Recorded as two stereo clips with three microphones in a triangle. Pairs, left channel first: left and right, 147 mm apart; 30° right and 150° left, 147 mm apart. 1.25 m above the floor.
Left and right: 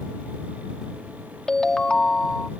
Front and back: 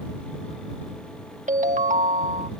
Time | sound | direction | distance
1.5 | a ringtone | 175° left | ?